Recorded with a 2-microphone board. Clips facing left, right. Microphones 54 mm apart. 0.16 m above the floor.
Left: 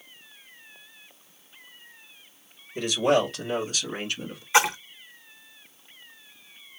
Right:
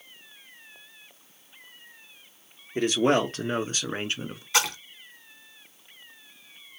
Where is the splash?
25° left (ahead or behind), 0.8 m.